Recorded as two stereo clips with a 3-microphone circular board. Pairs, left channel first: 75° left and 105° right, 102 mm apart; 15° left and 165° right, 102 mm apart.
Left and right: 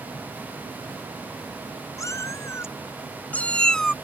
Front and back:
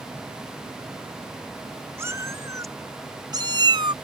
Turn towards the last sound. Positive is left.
turn(degrees=160)